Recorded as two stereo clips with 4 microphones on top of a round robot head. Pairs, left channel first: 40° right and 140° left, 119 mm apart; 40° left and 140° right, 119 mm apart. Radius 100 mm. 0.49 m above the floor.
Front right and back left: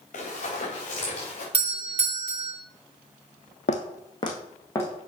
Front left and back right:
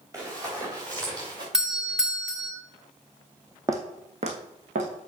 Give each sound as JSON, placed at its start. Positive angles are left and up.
{"t": 0.1, "sound": "running footsteps", "azimuth_deg": -70, "distance_m": 5.0}
{"t": 1.5, "sound": "a doorbell", "azimuth_deg": 140, "distance_m": 2.0}
{"t": 3.7, "sound": "footsteps", "azimuth_deg": -70, "distance_m": 1.0}